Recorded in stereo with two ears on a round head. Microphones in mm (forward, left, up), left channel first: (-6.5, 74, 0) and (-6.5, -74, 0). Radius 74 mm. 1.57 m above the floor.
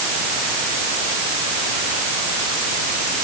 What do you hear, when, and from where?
Only background noise.